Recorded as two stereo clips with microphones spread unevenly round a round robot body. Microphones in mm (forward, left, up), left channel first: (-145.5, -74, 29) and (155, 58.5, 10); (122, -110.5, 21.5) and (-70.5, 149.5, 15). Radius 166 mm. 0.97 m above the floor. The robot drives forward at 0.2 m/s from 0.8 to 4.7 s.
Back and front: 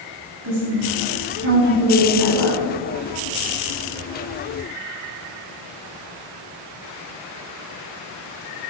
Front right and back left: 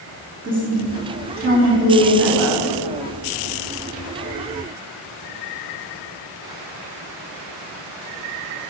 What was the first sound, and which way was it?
A woman speaking, 70° left.